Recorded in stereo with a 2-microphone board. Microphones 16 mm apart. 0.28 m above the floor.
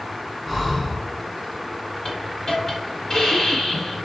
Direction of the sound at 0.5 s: 5° right (ahead or behind).